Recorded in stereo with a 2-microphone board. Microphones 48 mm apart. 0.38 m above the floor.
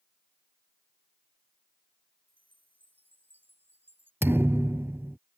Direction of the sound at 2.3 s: 45° right (ahead or behind).